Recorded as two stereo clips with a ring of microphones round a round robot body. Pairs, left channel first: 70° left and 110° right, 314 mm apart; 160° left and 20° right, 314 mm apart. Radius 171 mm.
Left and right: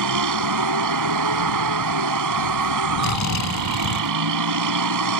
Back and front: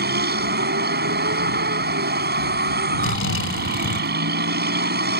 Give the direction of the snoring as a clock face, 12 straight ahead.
8 o'clock.